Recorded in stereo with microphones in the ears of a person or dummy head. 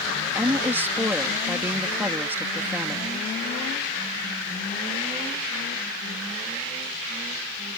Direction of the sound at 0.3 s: 15° right (ahead or behind).